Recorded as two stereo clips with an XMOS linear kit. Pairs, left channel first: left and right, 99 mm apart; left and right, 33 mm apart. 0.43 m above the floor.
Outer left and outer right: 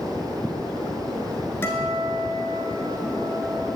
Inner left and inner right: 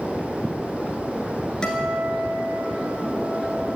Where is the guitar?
25° left (ahead or behind), 1.5 m.